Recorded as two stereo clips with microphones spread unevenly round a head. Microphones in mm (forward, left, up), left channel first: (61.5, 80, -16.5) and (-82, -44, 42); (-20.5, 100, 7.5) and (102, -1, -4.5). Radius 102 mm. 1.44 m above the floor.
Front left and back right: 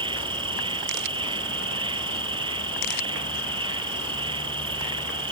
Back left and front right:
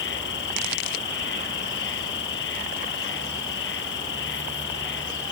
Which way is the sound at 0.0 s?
160° left.